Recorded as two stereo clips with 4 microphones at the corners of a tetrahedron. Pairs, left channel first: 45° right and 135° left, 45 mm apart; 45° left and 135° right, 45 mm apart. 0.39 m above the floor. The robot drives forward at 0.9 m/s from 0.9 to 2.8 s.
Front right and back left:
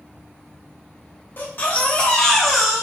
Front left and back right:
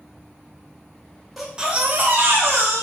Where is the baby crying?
50° right, 0.9 m; by 2.8 s 145° right, 1.2 m.